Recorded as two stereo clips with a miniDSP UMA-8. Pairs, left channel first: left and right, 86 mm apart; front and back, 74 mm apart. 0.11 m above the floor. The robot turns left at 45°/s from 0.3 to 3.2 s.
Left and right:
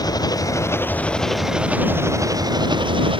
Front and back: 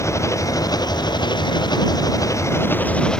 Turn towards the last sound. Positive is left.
turn(degrees=-80)